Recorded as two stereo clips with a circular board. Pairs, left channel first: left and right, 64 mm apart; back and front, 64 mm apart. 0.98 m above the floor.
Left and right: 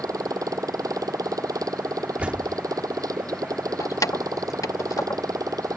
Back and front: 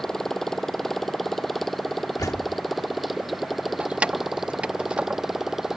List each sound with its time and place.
0.0 s a motorcycle: 100° right; by 5.8 s 85° right
2.2 s a door slam: 160° right
3.8 s keys jangling: 70° left